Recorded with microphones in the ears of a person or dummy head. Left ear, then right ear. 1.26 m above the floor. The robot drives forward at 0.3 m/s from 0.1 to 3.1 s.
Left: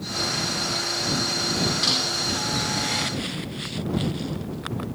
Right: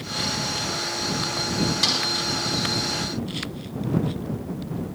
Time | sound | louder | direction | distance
1.8 | a snare drum | right 1 dB | 35° right (ahead or behind) | 3 m